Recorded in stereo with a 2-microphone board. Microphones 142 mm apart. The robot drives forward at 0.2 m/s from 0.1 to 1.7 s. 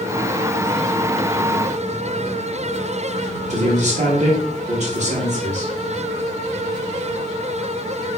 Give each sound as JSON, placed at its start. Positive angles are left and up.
{"t": 3.5, "sound": "a man speaking", "side_deg": -55, "distance_m": 1.1}